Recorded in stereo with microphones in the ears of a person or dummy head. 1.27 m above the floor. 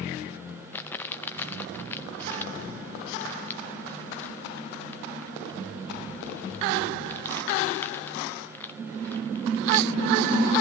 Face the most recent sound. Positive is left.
turn(degrees=15)  # may be behind; listen again after turning